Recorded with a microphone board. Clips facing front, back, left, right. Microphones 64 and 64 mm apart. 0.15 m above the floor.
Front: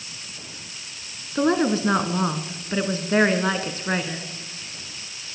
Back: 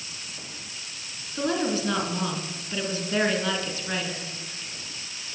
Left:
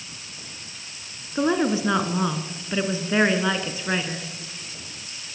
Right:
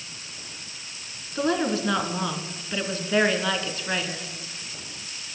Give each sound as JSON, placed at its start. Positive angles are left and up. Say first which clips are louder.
{"t": 1.4, "sound": "a woman speaking", "louder": "front 6 dB, left 3 dB", "azimuth_deg": 25, "distance_m": 1.5}